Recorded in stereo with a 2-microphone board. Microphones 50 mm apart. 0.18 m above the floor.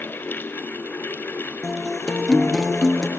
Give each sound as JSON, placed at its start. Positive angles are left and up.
{"t": 1.6, "sound": "a guitar", "side_deg": 10, "distance_m": 2.5}